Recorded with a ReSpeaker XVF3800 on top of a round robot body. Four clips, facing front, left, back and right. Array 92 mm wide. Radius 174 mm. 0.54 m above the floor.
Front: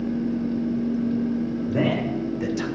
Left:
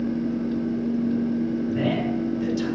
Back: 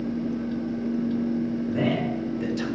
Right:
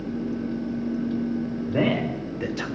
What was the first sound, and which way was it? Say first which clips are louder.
A man speaking: even, front 3 dB; 65° right.